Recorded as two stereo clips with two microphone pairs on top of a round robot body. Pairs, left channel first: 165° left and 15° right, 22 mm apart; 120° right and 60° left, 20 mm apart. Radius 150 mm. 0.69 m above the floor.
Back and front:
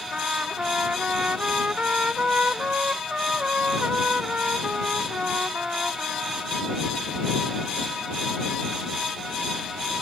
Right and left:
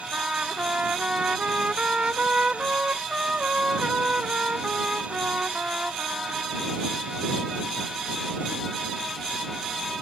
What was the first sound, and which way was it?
A trumpet, 30° left.